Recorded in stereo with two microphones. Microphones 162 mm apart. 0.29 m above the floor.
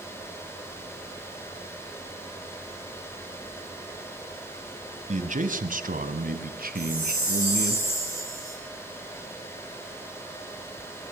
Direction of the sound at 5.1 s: 50° right (ahead or behind).